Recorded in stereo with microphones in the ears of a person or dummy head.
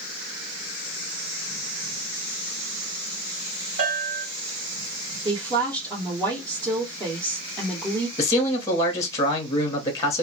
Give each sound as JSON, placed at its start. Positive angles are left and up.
{"t": 3.8, "sound": "a bell", "side_deg": -65, "distance_m": 1.5}
{"t": 5.2, "sound": "a woman speaking", "side_deg": -20, "distance_m": 0.9}
{"t": 8.2, "sound": "a man speaking", "side_deg": 15, "distance_m": 0.8}